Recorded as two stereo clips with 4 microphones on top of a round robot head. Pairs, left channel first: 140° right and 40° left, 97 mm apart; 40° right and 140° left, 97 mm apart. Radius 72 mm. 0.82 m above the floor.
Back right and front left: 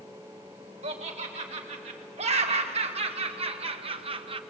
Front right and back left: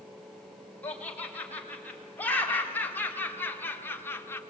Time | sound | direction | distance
0.8 | laughter | 35° left | 3.5 m